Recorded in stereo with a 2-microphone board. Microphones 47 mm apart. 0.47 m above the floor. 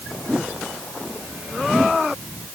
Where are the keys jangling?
No keys jangling in this recording.